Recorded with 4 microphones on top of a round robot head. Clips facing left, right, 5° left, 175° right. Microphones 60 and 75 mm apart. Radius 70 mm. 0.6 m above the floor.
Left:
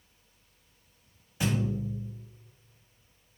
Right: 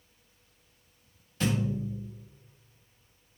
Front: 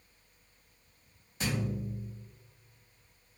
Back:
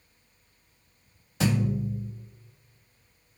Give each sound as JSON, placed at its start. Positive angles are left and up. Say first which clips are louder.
{"t": 1.4, "sound": "a thud", "louder": "even, back 8 dB", "azimuth_deg": 170, "distance_m": 1.1}